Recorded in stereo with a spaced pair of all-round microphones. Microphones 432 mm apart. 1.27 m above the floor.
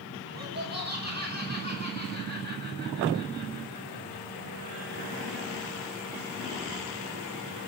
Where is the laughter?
20° right (ahead or behind), 10 m.